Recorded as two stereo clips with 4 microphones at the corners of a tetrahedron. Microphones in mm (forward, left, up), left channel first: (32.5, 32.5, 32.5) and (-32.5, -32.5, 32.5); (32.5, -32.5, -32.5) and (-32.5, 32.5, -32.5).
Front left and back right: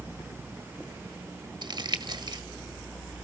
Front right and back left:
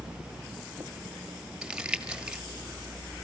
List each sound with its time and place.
1.6 s crumpling: 145° right, 1.6 m